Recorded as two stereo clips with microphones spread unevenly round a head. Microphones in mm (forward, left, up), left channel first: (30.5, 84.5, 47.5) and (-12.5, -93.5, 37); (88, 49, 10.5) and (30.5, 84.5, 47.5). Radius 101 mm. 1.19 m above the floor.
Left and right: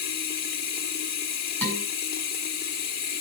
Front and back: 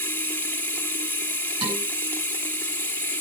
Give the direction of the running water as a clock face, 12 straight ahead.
11 o'clock.